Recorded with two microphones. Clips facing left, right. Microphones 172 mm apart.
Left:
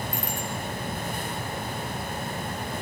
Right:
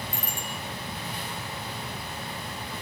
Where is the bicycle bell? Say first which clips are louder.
Left 4 dB; 10° right (ahead or behind), 5.5 m.